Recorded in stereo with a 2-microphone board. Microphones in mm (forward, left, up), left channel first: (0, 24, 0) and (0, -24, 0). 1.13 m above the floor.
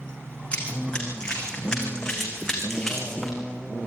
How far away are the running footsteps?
About 4 m.